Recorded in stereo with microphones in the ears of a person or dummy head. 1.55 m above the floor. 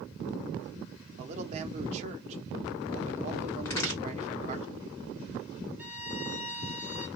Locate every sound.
1.2 s a man speaking: 40° right (ahead or behind), 0.8 m
3.6 s a crack: 15° left (ahead or behind), 1.9 m
5.8 s a violin: 10° right (ahead or behind), 0.8 m